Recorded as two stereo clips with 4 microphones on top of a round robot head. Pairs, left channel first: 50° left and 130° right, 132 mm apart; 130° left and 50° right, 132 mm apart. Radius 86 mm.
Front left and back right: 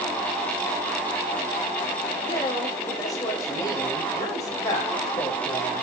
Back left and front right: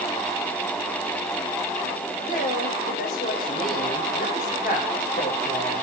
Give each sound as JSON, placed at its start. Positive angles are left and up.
{"t": 2.2, "sound": "a woman speaking", "azimuth_deg": 115, "distance_m": 5.0}